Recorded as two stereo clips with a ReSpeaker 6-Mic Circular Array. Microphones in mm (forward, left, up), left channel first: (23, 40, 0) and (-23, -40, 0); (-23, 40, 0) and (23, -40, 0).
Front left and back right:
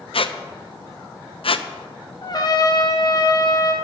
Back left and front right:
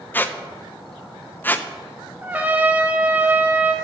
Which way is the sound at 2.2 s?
15° left.